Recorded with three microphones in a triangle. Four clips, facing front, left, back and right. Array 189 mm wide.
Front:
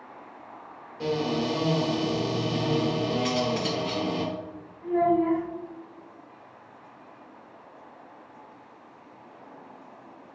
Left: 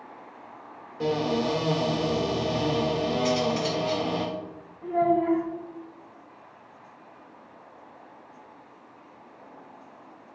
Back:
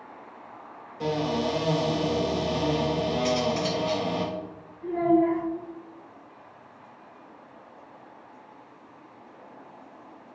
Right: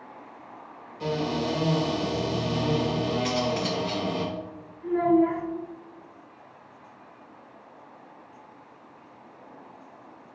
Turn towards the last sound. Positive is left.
turn(degrees=75)